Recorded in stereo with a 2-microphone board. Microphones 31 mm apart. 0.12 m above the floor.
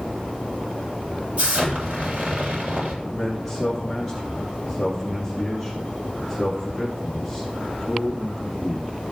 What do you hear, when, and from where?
1.4 s an explosion: 50° right (ahead or behind), 3.5 m
3.0 s a man speaking: centre (ahead or behind), 2.5 m